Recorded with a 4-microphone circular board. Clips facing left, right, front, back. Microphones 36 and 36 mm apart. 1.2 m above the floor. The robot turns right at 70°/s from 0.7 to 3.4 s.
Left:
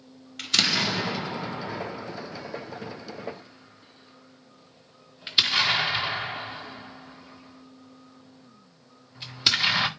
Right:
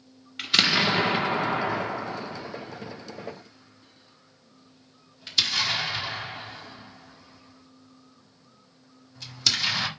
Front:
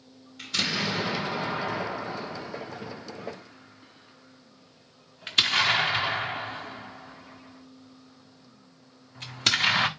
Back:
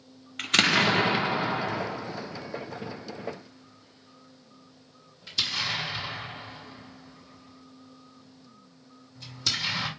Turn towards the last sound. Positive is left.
turn(degrees=30)